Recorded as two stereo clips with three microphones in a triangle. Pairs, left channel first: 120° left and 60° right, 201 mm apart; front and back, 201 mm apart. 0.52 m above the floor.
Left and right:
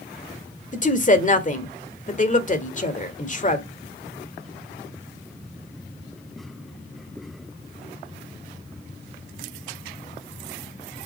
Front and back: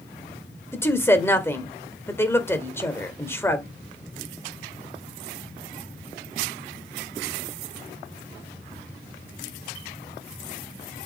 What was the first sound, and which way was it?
A woman speaking, 75° left.